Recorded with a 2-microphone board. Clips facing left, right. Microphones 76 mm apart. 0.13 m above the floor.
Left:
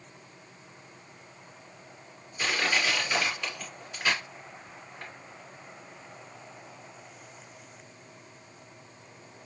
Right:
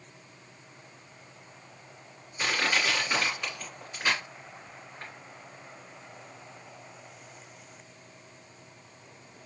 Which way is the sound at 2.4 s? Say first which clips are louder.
Even; 20° right (ahead or behind).